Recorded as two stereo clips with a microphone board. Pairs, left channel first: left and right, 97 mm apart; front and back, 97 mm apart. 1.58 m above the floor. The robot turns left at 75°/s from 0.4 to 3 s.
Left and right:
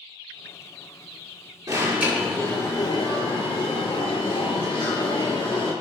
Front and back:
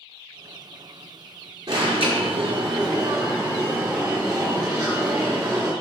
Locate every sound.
1.7 s an alarm: 135° right, 4.5 m; by 5.7 s 125° left, 4.5 m